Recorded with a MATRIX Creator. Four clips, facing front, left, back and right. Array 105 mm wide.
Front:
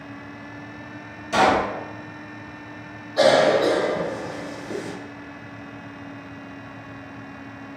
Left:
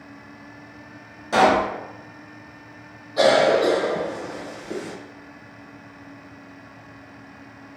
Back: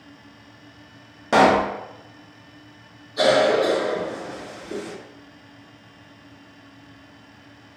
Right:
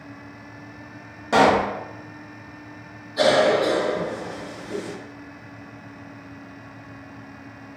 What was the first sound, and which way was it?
A pop, 165° right.